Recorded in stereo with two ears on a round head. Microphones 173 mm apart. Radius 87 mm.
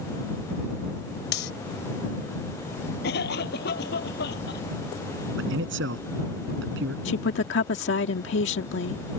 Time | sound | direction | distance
1.3 | cutlery clinking | 55° left (ahead or behind) | ?
3.0 | a cough | 55° left (ahead or behind) | ?
5.4 | a man speaking | 70° right (ahead or behind) | ?
7.0 | a woman speaking | 65° left (ahead or behind) | ?